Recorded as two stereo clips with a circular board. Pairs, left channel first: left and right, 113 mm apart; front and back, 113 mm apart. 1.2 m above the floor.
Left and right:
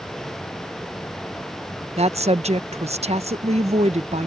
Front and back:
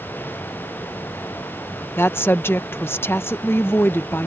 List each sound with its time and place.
2.0 s a woman speaking: 70° right